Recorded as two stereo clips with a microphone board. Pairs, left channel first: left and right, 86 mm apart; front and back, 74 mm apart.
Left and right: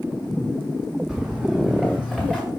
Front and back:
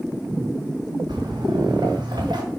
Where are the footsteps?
175° right, 3 m; by 2.4 s 175° left, 2.5 m.